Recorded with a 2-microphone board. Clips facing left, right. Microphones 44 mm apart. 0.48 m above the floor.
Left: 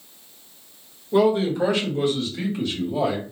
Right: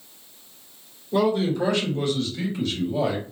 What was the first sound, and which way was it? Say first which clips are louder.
A man speaking: left 3 dB; 15° left (ahead or behind).